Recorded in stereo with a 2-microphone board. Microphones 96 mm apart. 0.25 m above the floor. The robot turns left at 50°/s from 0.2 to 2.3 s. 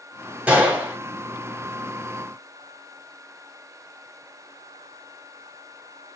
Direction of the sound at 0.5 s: 15° right (ahead or behind).